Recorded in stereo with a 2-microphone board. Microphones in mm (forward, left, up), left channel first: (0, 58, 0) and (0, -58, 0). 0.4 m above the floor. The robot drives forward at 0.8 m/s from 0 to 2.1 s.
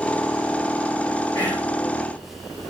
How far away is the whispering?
About 1.3 m.